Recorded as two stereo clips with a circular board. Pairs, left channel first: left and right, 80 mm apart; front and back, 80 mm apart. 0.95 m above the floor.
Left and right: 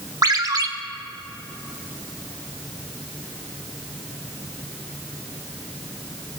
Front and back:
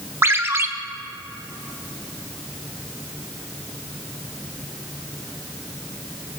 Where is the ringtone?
125° right, 0.8 m.